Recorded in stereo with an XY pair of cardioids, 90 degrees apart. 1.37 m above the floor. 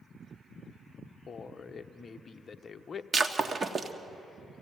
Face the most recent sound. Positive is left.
turn(degrees=-35)